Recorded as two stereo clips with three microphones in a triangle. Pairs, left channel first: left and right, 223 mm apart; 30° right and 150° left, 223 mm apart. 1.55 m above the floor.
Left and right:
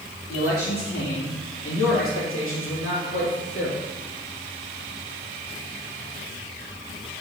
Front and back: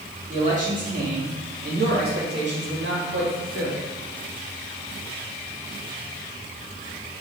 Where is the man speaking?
95° left, 3 m; by 3.9 s 130° left, 2.5 m.